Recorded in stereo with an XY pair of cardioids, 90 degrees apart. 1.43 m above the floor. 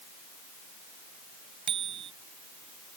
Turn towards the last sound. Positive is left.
turn(degrees=-65)